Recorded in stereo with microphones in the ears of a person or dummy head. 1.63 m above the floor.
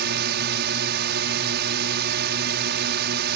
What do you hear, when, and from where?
0.0 s a drone: 60° right (ahead or behind)